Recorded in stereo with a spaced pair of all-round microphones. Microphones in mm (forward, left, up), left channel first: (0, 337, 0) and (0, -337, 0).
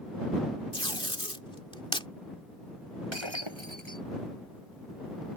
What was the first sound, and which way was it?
Tape being pulled, 5° left (ahead or behind).